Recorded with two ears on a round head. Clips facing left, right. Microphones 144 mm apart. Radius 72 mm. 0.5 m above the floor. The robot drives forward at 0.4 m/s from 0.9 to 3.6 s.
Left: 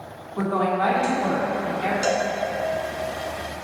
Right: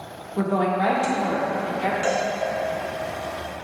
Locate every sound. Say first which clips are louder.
0.4 s a woman speaking: right 1 dB; 20° right (ahead or behind), 1.2 m; by 1.9 s 15° right (ahead or behind), 1.3 m
2.0 s a cowbell: left 1 dB; 55° left (ahead or behind), 1.1 m; by 2.3 s 50° left (ahead or behind), 1.1 m